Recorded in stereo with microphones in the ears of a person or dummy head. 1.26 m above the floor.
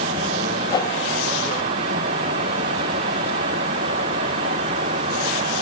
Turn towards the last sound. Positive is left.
turn(degrees=20)  # may be behind; listen again after turning